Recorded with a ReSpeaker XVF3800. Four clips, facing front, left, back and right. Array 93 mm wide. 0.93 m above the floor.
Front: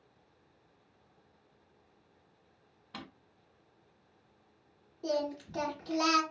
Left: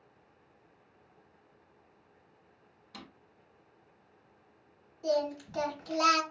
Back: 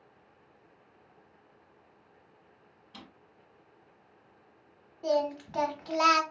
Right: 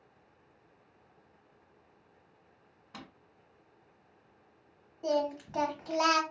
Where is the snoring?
No snoring in this recording.